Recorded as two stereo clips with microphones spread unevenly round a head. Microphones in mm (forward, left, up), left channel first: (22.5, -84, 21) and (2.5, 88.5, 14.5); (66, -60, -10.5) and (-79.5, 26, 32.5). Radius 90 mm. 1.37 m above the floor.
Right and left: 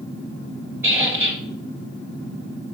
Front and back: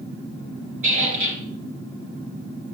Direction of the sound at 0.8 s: 175° left.